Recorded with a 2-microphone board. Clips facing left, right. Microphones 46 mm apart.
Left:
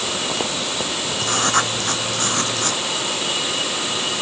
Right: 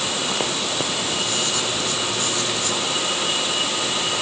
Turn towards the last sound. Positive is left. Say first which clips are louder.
# left 4 dB
turn(degrees=55)  # may be behind; listen again after turning